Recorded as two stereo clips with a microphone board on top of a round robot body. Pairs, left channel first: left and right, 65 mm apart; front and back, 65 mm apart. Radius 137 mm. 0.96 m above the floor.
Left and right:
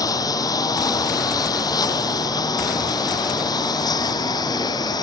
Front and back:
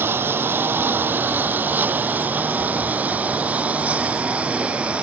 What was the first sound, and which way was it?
A lawn mower, 120° left.